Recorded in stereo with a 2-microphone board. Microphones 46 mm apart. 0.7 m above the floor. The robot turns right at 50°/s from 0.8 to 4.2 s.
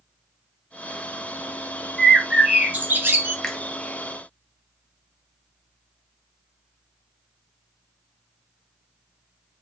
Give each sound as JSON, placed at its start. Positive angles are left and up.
{"t": 2.0, "sound": "a bird", "azimuth_deg": 175, "distance_m": 2.5}
{"t": 3.4, "sound": "a finger snap", "side_deg": 10, "distance_m": 0.7}